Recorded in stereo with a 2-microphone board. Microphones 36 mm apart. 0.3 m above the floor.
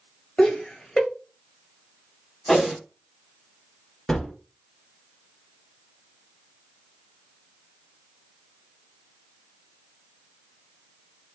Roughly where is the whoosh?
Centre.